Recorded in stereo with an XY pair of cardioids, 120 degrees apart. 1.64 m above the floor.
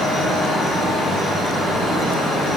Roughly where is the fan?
Ahead right.